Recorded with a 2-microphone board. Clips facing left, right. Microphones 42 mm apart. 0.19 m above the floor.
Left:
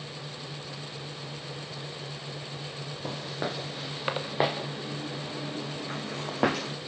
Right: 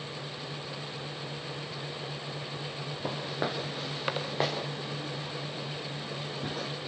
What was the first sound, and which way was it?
Footsteps, 10° right (ahead or behind).